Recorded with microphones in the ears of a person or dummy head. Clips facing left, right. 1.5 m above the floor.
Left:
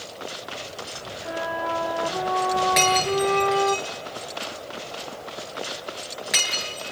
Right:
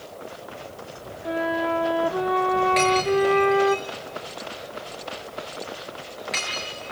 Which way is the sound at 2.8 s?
15° left (ahead or behind).